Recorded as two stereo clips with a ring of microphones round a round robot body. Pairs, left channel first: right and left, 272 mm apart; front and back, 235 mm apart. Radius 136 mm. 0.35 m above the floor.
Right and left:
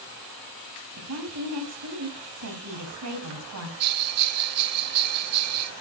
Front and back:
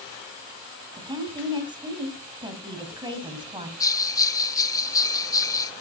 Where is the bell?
75° left, 0.6 m.